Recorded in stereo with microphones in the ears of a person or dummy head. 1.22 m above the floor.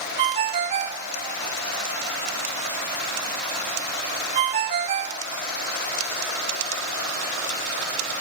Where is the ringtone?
25° right (ahead or behind), 0.5 m.